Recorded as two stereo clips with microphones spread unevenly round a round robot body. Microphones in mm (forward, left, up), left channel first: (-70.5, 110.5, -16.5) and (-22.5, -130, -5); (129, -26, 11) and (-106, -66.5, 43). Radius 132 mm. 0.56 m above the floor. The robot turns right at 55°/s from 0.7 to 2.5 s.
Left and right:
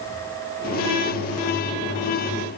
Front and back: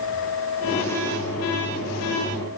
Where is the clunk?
No clunk in this recording.